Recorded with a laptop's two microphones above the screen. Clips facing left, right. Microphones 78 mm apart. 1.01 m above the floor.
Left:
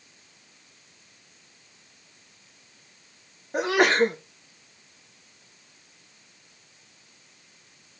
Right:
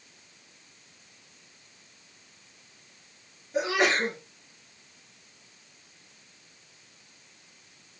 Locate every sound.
3.5 s a sneeze: 60° left (ahead or behind), 3 m